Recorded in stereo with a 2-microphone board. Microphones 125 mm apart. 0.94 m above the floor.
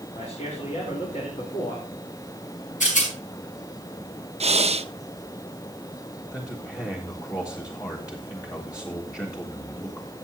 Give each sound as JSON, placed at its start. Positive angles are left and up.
{"t": 0.1, "sound": "a man speaking", "side_deg": 75, "distance_m": 3.0}
{"t": 2.8, "sound": "a rattle", "side_deg": 80, "distance_m": 5.0}
{"t": 4.4, "sound": "breathing", "side_deg": -55, "distance_m": 0.6}
{"t": 6.3, "sound": "a man speaking", "side_deg": 25, "distance_m": 1.4}